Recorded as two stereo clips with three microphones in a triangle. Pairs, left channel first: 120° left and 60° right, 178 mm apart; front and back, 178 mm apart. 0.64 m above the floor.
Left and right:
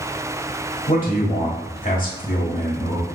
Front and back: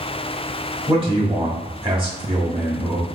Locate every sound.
0.9 s a man speaking: 130° left, 1.6 m